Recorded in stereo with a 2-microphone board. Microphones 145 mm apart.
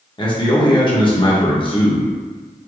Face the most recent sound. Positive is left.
turn(degrees=35)  # may be behind; listen again after turning